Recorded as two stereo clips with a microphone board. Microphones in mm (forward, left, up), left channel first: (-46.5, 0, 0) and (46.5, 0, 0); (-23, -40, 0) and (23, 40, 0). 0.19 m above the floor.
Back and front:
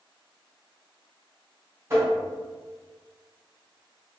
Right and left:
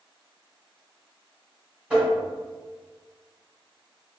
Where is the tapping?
Straight ahead, 1.6 m.